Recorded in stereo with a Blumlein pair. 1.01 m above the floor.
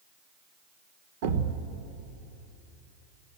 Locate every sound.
1.2 s a thud: 50° right, 1.3 m